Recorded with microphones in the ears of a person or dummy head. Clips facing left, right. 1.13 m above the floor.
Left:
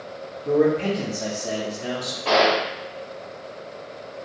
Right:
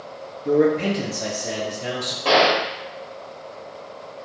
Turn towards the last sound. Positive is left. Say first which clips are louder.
# right 1 dB
turn(degrees=-55)  # may be behind; listen again after turning